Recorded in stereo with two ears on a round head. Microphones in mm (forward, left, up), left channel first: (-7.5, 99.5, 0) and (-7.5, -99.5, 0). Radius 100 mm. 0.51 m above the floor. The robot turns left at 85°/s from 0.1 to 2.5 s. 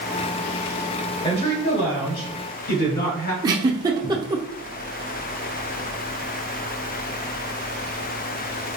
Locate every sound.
1.2 s a woman speaking: 155° left, 2 m; by 3.3 s 50° left, 2 m
3.4 s a giggle: 20° right (ahead or behind), 0.7 m